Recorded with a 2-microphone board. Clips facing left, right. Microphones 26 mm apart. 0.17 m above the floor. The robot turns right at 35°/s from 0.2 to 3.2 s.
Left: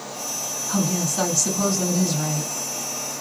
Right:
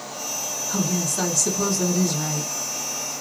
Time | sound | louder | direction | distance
0.7 | a woman speaking | left 2 dB | 25° left (ahead or behind) | 1.1 m